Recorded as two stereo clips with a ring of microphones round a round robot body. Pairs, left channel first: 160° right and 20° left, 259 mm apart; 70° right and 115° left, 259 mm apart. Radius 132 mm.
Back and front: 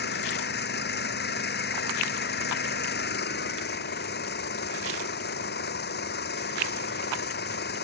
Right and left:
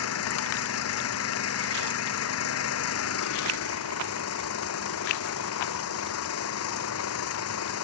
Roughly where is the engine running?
Right.